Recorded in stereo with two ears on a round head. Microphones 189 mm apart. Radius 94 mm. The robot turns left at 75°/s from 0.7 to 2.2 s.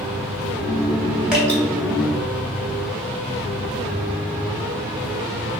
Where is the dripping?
5° right (ahead or behind), 0.8 m; by 1.6 s 15° left (ahead or behind), 0.8 m.